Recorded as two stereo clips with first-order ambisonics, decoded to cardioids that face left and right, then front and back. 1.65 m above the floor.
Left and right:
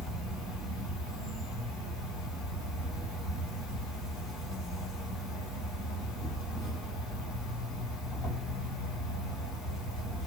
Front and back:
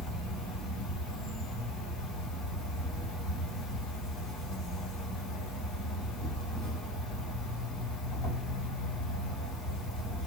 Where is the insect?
40° left, 2.5 m.